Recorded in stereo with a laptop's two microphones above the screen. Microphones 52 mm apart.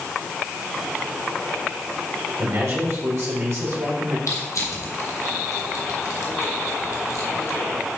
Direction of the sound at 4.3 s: 80° left.